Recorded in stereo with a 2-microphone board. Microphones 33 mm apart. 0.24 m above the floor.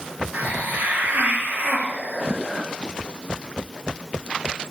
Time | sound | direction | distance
0.3 | a hiss | 60° right (ahead or behind) | 3 m